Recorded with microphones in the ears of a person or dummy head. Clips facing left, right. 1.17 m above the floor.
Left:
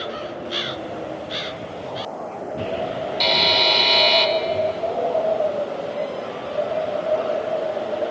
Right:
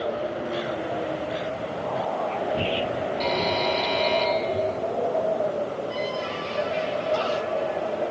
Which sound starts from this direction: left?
A buzzer, at 3.2 s.